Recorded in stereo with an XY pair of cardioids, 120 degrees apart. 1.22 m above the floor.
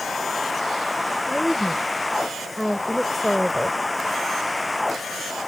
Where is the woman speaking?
5° left.